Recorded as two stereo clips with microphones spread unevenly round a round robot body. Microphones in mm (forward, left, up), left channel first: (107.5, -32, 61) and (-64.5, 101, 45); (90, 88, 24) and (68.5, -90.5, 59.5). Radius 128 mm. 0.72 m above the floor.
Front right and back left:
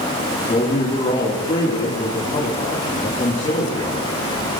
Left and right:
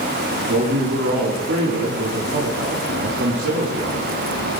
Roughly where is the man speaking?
Right.